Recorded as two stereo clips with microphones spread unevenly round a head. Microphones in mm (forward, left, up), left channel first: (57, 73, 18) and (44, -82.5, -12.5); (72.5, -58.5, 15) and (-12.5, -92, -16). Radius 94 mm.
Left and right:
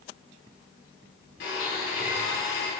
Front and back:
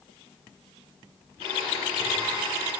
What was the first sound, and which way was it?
A blender, 80° left.